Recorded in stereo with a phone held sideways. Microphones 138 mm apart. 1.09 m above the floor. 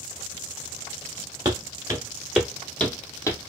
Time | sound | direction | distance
1.4 | footsteps | 30° right (ahead or behind) | 1.2 m